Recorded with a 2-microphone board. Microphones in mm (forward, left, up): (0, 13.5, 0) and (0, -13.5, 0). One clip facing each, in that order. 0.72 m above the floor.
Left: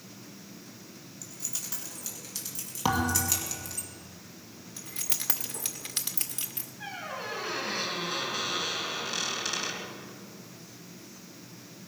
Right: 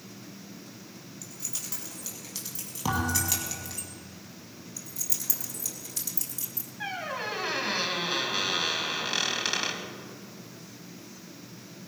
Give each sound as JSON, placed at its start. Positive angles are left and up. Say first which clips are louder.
{"t": 1.2, "sound": "keys jangling", "louder": "even", "side_deg": -5, "distance_m": 4.5}
{"t": 2.9, "sound": "a thud", "louder": "left 1 dB", "side_deg": 25, "distance_m": 2.5}
{"t": 4.8, "sound": "keys jangling", "louder": "left 1 dB", "side_deg": 55, "distance_m": 1.1}
{"t": 6.8, "sound": "a squeak", "louder": "right 4 dB", "side_deg": -40, "distance_m": 2.5}